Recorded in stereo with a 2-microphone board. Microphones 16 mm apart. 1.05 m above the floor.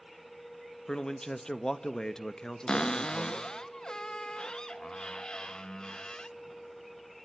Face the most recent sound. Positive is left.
turn(degrees=65)  # may be behind; listen again after turning